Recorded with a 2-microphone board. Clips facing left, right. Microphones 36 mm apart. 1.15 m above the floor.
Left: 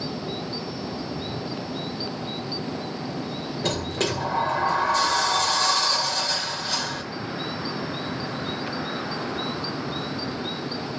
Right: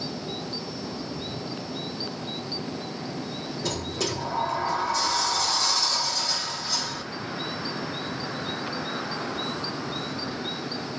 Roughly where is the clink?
I don't hear a clink.